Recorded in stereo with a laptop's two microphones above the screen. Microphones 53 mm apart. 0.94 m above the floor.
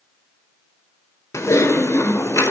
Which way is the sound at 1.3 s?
85° left.